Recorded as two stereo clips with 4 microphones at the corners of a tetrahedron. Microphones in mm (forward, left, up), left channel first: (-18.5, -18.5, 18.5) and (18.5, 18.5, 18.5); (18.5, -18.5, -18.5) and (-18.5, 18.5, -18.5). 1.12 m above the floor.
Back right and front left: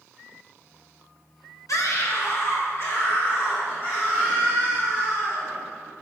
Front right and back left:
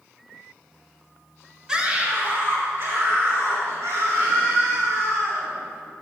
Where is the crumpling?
I don't hear crumpling.